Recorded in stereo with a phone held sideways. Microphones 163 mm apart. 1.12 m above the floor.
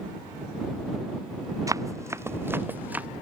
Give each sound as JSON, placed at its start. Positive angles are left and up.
{"t": 1.7, "sound": "running footsteps", "side_deg": -20}